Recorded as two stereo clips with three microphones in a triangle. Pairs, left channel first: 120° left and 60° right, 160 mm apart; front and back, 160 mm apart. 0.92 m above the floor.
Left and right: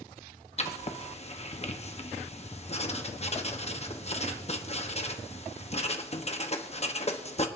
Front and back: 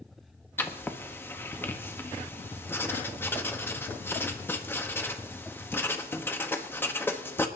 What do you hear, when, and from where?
0.6 s writing: 75° left, 1.0 m